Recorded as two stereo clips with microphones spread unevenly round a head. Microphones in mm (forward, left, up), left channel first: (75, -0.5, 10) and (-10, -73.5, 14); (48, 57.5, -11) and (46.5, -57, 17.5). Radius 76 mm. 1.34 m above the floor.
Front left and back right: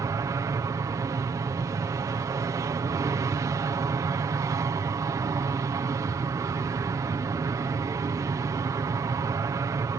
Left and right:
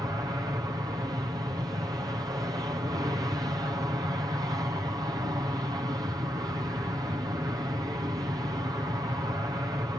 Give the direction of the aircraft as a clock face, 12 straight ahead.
5 o'clock.